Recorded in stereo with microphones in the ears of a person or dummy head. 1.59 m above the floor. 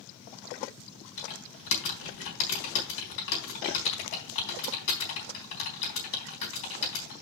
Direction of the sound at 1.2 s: 65° left (ahead or behind).